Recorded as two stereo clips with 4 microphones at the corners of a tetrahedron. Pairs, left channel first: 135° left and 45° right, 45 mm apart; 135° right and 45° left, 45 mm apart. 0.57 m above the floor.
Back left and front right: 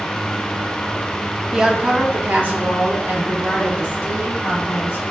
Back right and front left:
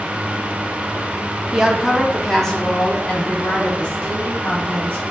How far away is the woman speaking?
About 0.7 m.